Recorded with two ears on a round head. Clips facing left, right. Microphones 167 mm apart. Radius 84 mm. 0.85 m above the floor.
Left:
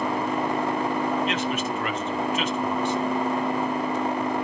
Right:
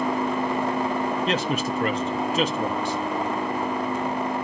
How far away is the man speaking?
About 1.4 m.